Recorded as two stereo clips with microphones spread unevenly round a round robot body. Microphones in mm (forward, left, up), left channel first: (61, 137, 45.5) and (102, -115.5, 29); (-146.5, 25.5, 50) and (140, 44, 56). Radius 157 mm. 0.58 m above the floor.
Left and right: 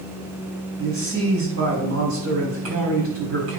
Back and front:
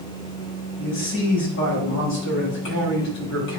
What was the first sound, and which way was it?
A man speaking, 125° right.